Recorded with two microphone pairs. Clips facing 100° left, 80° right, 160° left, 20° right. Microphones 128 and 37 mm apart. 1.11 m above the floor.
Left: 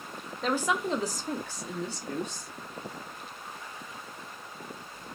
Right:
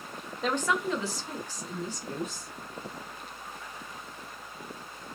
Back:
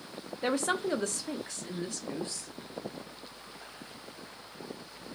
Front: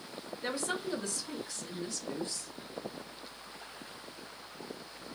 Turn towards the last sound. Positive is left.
turn(degrees=110)